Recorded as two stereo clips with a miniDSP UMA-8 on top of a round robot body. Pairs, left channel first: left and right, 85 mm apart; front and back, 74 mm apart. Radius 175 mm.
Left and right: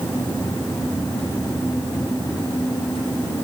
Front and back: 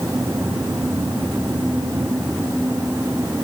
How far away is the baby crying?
I don't hear a baby crying.